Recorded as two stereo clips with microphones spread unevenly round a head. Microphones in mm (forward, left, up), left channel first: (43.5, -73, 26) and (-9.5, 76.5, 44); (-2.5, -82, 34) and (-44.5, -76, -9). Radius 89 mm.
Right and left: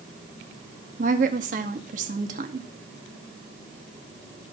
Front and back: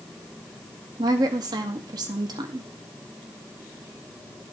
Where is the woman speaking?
135° left, 0.7 m.